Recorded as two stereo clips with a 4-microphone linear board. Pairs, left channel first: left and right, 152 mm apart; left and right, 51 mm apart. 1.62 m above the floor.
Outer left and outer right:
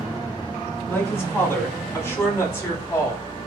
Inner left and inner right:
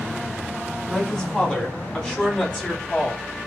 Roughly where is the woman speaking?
Centre.